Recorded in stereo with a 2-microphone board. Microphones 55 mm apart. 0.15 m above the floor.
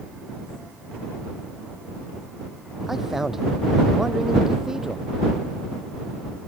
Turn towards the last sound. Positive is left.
turn(degrees=-10)  # may be behind; listen again after turning